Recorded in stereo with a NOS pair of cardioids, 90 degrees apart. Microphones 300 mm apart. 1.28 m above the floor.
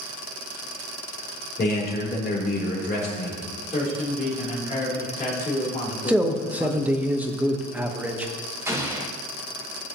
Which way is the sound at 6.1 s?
5° right.